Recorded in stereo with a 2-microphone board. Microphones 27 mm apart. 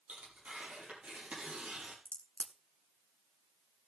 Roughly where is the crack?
Left.